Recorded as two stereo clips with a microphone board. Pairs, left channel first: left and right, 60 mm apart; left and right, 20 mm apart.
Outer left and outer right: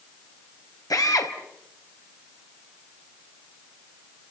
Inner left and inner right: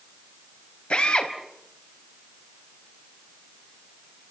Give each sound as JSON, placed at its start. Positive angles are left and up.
{"t": 0.9, "sound": "a drill", "side_deg": 70, "distance_m": 4.0}